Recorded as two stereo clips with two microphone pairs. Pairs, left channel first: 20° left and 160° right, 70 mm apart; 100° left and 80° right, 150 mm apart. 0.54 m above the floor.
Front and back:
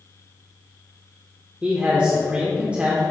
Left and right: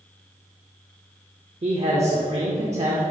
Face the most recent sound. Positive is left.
turn(degrees=-95)